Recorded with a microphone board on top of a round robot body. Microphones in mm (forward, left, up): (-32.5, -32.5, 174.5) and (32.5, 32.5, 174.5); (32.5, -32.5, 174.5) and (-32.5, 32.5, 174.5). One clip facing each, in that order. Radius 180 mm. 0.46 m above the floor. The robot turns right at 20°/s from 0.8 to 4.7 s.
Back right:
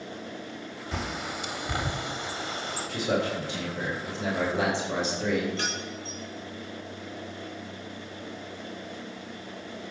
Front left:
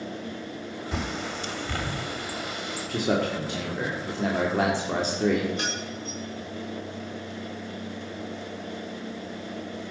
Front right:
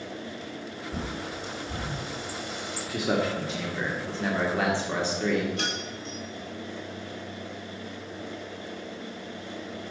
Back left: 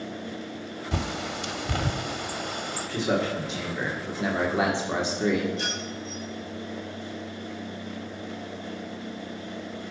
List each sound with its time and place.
0.9 s a bird: 135° left, 0.8 m; by 2.9 s 175° left, 0.8 m
2.9 s a man speaking: 35° left, 2.0 m; by 5.5 s 70° left, 2.0 m
5.6 s keys jangling: 25° right, 4.5 m